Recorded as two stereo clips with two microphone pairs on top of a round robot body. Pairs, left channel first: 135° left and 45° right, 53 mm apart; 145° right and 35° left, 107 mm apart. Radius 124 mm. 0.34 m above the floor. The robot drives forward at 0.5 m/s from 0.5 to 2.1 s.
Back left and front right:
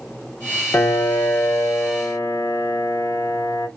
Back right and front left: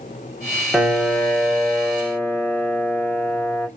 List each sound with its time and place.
0.7 s a piano: 120° left, 1.1 m; by 3.7 s 145° left, 1.6 m